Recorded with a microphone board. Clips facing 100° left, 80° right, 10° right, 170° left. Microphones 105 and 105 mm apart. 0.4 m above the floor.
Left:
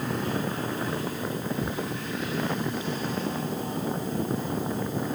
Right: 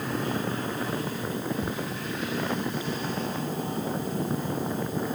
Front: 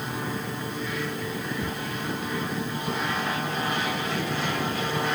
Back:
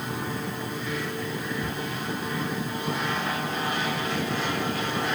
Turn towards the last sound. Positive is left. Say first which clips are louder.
# left 1 dB, even
turn(degrees=45)